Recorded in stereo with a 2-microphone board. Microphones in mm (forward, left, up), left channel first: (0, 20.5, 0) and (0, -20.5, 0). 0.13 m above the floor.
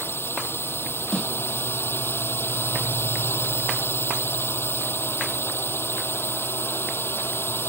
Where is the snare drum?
20° left (ahead or behind).